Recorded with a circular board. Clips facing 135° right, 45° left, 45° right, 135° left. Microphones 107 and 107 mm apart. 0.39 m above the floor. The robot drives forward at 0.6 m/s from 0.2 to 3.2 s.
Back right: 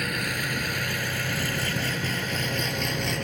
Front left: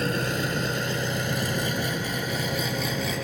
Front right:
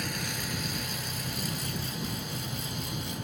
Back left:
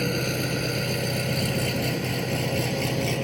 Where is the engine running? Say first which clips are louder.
Front left 4 dB, back left 10 dB; 105° left; by 3.2 s 130° left.